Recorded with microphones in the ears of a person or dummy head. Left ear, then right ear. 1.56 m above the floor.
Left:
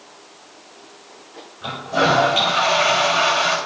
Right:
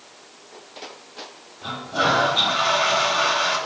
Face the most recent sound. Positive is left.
turn(degrees=35)  # may be behind; listen again after turning